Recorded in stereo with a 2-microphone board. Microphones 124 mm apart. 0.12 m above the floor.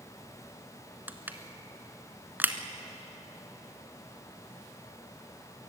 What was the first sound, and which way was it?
Crushing, 15° right (ahead or behind).